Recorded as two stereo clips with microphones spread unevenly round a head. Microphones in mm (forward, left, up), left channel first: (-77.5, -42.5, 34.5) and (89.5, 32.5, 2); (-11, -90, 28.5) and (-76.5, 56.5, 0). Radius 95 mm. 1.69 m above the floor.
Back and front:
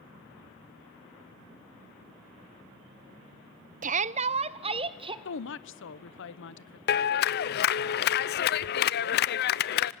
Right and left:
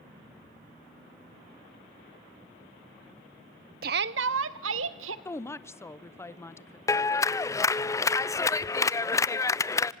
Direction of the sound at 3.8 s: 75° left.